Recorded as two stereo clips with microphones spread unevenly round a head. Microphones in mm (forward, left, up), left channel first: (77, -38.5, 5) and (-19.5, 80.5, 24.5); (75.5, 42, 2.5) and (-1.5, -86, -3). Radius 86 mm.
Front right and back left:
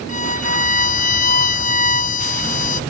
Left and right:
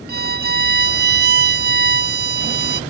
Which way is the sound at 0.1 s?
100° right.